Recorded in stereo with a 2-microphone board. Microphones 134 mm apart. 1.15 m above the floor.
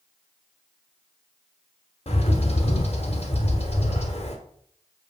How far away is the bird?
About 1.2 m.